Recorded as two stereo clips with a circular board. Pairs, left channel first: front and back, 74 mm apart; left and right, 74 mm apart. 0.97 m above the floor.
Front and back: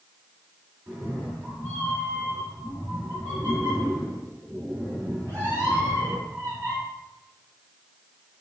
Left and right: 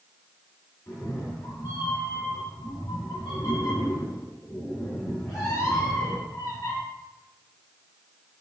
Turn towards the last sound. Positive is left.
turn(degrees=125)